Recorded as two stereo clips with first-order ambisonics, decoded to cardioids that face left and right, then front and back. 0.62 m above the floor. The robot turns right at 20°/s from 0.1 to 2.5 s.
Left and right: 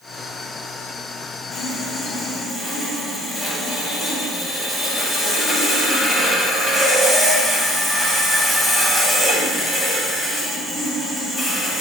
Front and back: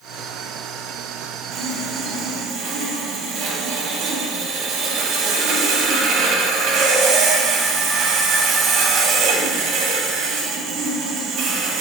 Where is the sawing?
160° left, 0.6 m; by 11.8 s straight behind, 0.6 m.